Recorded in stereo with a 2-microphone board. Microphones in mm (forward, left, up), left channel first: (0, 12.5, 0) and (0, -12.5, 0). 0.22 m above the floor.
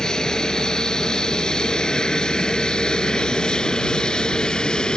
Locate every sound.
0.0 s an aircraft: 30° left (ahead or behind); by 5.0 s 35° left (ahead or behind)